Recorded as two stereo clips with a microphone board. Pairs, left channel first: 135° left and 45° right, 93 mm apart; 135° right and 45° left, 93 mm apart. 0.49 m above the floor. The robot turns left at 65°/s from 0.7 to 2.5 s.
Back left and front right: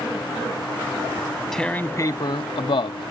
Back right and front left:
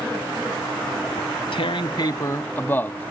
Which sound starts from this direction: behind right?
Tearing paper, at 1.2 s.